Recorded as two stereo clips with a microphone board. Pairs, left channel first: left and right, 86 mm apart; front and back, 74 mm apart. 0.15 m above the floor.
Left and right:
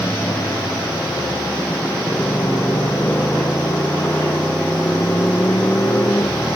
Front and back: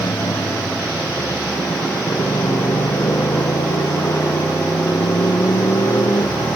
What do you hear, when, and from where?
0.0 s a motorcycle: 30° left